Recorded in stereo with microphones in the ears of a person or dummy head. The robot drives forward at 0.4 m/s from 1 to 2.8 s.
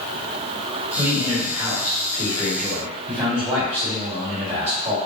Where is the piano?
No piano in this recording.